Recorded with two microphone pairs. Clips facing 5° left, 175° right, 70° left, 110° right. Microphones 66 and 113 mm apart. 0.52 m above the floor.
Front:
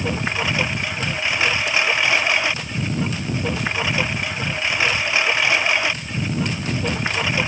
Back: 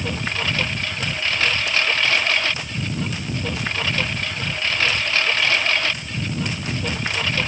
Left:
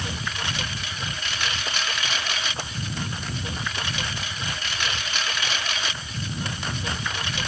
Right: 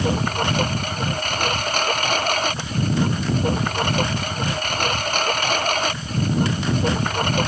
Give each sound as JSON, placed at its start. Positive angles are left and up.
{"t": 0.0, "sound": "a lawn mower", "azimuth_deg": -70}